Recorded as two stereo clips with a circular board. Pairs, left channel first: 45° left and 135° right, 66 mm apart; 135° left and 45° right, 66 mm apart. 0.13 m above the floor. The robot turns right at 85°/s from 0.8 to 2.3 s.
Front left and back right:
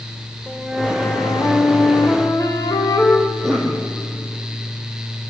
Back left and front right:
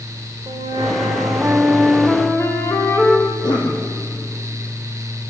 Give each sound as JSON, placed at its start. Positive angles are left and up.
{"t": 0.5, "sound": "a flute", "azimuth_deg": -45, "distance_m": 6.0}
{"t": 3.3, "sound": "a cough", "azimuth_deg": 125, "distance_m": 5.0}